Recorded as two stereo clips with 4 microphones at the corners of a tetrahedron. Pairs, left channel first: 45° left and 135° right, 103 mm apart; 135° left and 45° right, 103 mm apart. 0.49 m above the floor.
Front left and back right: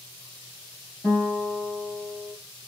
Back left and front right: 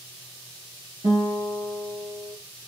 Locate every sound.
1.0 s a guitar: 25° right, 3 m